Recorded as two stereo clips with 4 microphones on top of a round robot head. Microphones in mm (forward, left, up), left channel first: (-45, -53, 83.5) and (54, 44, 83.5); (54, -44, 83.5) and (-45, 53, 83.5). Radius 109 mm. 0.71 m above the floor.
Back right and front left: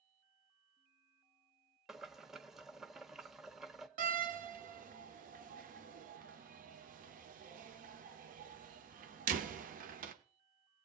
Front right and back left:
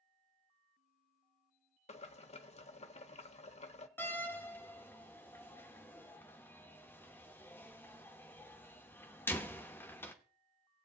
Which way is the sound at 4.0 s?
30° left.